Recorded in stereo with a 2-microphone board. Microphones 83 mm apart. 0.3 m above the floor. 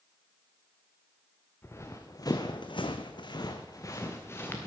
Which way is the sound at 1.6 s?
30° left (ahead or behind).